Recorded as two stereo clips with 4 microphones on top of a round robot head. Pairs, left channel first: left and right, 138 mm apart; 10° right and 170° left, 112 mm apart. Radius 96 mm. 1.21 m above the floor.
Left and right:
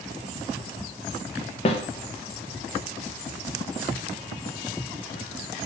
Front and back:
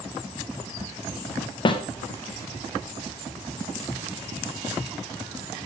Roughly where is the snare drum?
Ahead left.